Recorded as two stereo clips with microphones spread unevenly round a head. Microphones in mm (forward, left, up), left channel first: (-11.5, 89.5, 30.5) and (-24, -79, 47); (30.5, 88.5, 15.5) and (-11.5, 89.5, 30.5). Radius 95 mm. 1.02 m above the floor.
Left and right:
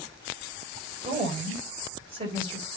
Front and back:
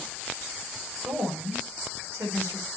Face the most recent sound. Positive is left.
turn(degrees=-150)